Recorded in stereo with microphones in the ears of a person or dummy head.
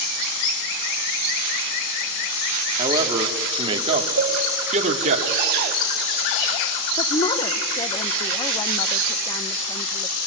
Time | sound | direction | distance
2.8 | a man speaking | 25° right (ahead or behind) | 2.5 m
4.2 | a cowbell | 80° right | 2 m
7.0 | a woman speaking | 25° left (ahead or behind) | 1.0 m